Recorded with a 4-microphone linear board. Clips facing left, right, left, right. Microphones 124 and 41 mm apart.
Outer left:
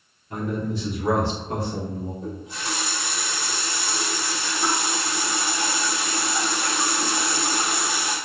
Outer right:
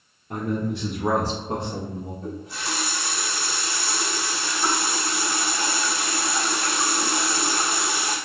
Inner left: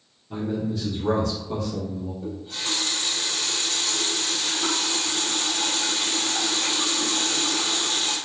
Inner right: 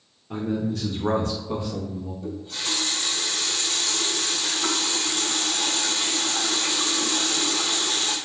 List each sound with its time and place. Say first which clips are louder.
0.3 s a man speaking: outer right 1 dB, inner right 1 dB; 65° right (ahead or behind), 0.7 m; by 2.1 s 10° right (ahead or behind), 1.1 m
2.2 s a running tap: even, even; 20° left (ahead or behind), 1.0 m